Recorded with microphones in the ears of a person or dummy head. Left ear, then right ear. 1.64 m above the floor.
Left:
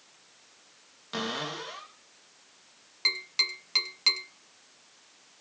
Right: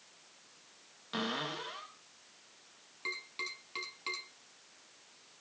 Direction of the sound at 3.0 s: 50° left (ahead or behind).